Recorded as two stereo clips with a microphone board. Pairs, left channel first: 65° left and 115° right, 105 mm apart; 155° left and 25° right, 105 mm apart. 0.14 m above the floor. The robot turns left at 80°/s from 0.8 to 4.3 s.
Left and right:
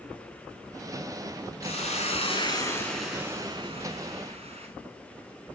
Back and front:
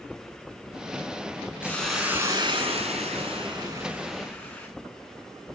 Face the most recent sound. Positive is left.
turn(degrees=-125)